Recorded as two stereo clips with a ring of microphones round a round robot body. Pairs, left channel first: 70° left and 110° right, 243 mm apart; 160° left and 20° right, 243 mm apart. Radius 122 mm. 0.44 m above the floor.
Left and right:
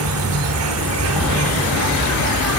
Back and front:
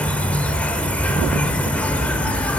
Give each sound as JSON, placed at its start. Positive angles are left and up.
{"t": 0.0, "sound": "an insect", "azimuth_deg": -120, "distance_m": 0.8}